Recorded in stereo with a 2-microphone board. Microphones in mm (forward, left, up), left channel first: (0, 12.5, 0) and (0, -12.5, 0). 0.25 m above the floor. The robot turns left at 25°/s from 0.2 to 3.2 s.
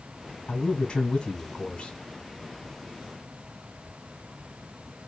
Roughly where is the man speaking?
Behind left.